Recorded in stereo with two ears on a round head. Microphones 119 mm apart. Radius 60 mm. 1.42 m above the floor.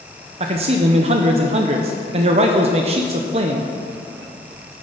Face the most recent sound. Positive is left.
turn(degrees=-50)  # may be behind; listen again after turning